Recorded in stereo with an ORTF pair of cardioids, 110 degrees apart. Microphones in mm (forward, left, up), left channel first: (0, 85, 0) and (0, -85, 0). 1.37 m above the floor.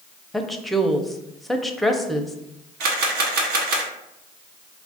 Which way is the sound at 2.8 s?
70° right.